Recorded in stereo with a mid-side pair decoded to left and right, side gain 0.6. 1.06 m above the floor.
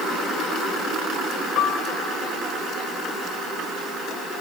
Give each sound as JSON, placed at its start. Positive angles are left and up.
{"t": 1.6, "sound": "a piano", "azimuth_deg": 60, "distance_m": 1.5}